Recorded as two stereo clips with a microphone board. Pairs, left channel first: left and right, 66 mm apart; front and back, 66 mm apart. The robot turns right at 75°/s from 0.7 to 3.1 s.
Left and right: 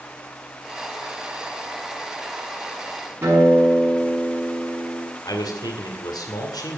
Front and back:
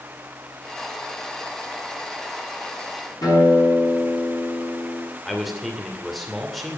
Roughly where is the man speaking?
Left.